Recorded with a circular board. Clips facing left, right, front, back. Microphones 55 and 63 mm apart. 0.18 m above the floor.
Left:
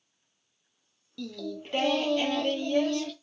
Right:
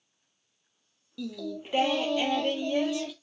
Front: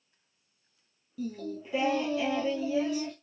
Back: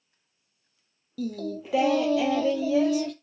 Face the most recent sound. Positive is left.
turn(degrees=-170)